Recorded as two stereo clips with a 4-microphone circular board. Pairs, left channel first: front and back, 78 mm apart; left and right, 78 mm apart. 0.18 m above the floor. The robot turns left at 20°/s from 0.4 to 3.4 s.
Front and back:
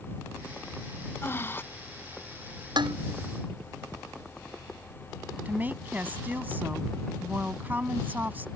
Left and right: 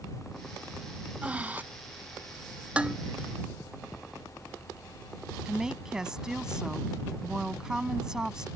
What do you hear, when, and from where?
1.2 s breathing: 30° right; by 1.6 s 35° right
2.8 s dishes clattering: 165° right; by 3.0 s 170° right
5.5 s a woman speaking: 160° right